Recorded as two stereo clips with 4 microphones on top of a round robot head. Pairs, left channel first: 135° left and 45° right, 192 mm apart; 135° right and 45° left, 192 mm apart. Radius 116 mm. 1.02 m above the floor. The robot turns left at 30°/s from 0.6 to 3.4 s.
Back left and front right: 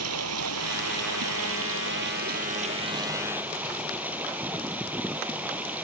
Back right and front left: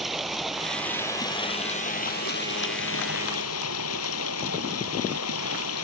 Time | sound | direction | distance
0.0 | running water | 45° right | ?